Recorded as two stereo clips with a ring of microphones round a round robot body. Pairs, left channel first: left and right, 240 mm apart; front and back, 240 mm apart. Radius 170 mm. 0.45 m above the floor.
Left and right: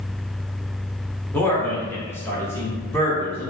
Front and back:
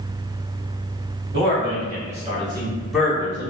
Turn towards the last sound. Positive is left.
turn(degrees=25)